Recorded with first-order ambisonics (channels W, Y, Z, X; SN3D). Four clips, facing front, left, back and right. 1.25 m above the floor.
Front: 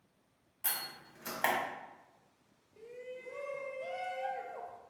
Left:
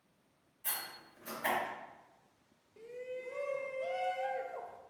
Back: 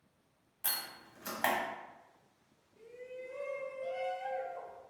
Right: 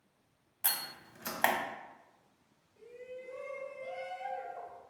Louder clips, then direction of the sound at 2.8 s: Left 3 dB, even; 60° left.